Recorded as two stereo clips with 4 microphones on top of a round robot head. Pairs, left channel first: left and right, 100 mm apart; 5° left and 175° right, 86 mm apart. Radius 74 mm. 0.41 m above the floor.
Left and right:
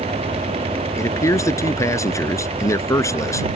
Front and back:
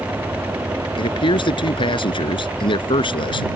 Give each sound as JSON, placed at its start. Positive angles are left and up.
{"t": 1.0, "sound": "a man speaking", "azimuth_deg": 30}